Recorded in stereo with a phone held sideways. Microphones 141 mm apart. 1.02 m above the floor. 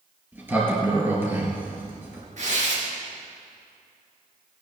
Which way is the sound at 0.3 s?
15° right (ahead or behind).